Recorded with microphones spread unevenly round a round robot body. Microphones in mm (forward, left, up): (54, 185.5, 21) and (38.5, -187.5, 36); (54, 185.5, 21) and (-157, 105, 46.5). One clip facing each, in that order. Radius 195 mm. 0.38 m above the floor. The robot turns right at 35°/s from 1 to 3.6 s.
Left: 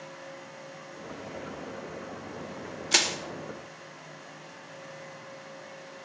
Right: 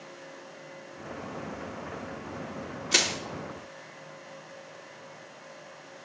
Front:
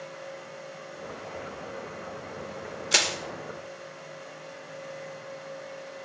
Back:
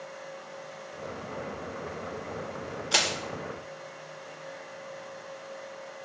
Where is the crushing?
30° left, 0.8 m; by 3.2 s 35° left, 0.8 m.